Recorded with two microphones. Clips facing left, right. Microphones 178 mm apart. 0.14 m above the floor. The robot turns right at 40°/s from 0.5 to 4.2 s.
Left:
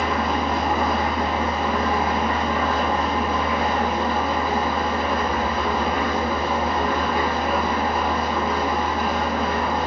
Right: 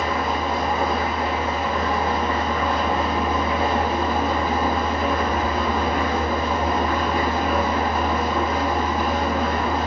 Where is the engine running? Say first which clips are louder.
Left 1 dB; 90° left, 1.5 m; by 9.9 s 120° right, 1.5 m.